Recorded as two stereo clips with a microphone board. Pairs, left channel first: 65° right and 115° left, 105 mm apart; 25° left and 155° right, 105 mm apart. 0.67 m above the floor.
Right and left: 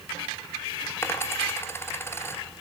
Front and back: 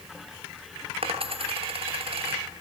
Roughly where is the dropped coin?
Behind right.